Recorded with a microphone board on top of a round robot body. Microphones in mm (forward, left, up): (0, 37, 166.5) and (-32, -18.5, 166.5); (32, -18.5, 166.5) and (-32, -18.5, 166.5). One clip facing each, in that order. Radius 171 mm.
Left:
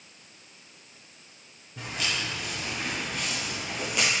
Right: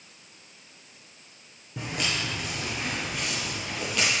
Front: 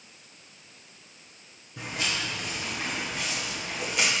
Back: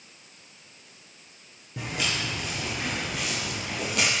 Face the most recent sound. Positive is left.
turn(degrees=135)